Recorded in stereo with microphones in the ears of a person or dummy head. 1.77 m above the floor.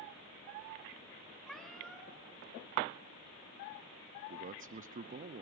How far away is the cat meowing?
About 3 m.